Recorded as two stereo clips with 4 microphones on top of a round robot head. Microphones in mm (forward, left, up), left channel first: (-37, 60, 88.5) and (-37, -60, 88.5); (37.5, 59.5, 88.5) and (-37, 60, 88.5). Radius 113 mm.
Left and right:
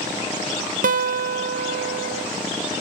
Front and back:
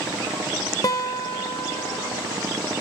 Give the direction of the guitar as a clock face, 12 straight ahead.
2 o'clock.